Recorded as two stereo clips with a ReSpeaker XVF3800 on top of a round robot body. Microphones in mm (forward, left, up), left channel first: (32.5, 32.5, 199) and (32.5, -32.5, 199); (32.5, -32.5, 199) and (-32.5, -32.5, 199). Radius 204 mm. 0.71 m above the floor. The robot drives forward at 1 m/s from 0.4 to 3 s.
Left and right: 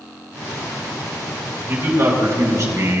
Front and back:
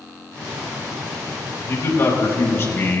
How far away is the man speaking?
About 4.5 m.